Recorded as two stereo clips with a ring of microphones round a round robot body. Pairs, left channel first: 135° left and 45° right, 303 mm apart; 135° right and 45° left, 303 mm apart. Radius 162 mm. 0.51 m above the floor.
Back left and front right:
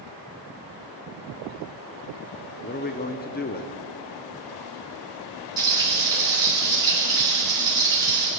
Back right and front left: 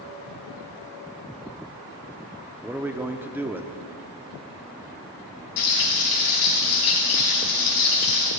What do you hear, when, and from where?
2.6 s a man speaking: 120° left, 0.7 m
5.6 s frying: 120° right, 4 m